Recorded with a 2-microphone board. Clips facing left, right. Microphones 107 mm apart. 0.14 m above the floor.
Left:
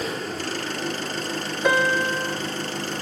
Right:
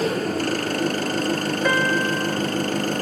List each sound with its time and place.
0.0 s an engine running: 55° right (ahead or behind), 2.0 m
1.6 s a piano: 10° left (ahead or behind), 1.2 m